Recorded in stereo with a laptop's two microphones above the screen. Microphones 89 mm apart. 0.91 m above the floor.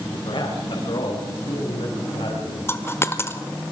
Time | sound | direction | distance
0.1 | a man speaking | 65° left (ahead or behind) | 4.5 m
2.7 | a dropped coin | 30° left (ahead or behind) | 1.0 m